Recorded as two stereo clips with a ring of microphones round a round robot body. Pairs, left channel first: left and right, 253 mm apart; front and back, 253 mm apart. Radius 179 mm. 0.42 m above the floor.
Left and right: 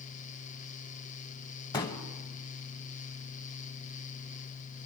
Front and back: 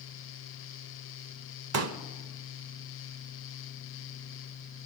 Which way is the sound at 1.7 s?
165° left.